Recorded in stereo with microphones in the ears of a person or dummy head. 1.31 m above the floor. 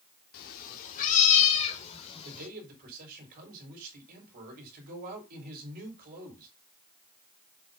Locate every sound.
0.3 s a cat meowing: 55° left (ahead or behind), 1.7 m; by 2.5 s 30° left (ahead or behind), 3 m
2.2 s a man speaking: 55° right (ahead or behind), 4.5 m